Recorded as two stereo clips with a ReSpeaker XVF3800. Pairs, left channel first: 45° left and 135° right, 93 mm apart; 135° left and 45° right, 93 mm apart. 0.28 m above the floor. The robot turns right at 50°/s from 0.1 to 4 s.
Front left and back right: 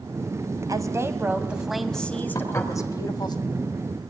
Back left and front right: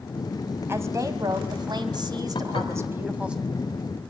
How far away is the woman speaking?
About 2 m.